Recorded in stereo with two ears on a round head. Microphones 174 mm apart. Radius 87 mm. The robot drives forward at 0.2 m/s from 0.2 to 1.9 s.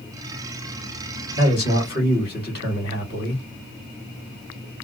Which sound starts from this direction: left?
A man speaking, at 1.4 s.